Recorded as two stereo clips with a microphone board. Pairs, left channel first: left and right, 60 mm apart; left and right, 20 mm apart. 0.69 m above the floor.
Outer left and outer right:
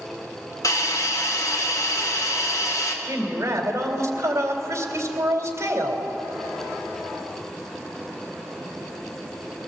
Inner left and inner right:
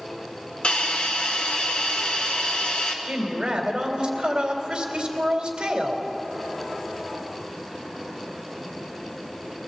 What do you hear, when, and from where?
0.6 s a hiss: 65° left (ahead or behind), 3 m
3.0 s a woman speaking: 50° right (ahead or behind), 3 m